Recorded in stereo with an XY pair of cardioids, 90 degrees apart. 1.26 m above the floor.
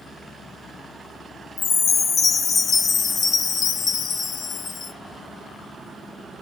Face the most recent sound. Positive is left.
turn(degrees=60)